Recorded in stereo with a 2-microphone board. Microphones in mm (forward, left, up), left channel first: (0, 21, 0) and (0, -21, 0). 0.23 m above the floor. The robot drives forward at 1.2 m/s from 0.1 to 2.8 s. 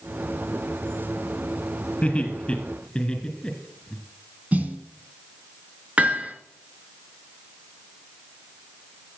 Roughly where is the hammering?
Right.